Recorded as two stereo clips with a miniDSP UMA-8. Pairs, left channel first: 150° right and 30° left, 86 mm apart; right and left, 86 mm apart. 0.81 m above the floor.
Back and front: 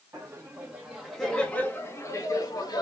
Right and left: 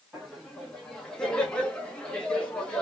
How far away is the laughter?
About 1.2 m.